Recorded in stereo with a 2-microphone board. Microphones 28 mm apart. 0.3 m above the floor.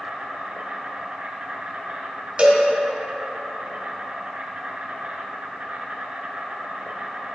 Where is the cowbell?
50° right (ahead or behind), 1.2 m.